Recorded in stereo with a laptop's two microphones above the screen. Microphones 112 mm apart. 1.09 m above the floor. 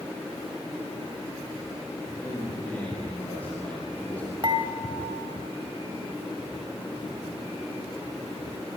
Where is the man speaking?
10° left (ahead or behind), 8 m.